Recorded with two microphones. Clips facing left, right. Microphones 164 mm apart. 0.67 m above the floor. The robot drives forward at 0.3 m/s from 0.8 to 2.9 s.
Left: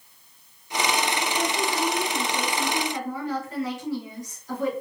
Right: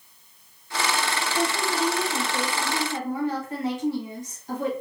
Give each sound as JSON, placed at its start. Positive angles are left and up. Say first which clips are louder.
{"t": 1.4, "sound": "a woman speaking", "louder": "right 3 dB", "side_deg": -45, "distance_m": 2.5}